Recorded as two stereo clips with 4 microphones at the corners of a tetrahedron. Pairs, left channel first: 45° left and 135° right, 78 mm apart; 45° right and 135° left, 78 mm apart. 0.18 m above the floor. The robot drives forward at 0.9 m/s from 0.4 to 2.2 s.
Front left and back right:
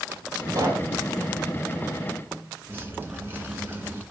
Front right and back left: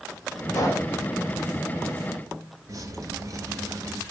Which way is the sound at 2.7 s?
165° left.